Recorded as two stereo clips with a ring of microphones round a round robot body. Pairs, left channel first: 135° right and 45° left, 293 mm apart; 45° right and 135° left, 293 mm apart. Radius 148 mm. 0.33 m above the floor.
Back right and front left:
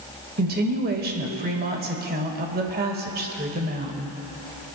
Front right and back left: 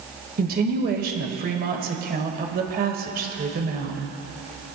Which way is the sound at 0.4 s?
90° left.